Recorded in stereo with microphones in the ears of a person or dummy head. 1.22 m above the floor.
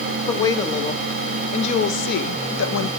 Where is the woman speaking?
15° left (ahead or behind), 1.5 m; by 2.9 s 75° left (ahead or behind), 0.9 m.